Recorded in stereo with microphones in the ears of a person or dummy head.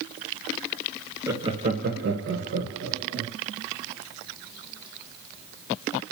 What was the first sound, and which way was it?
Laughter, 10° right (ahead or behind).